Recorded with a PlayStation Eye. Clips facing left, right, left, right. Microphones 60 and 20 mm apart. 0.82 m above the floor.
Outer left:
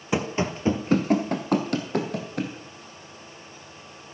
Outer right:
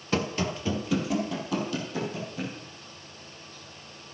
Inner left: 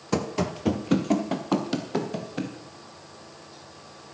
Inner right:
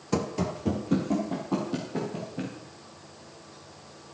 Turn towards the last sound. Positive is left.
turn(degrees=65)  # may be behind; listen again after turning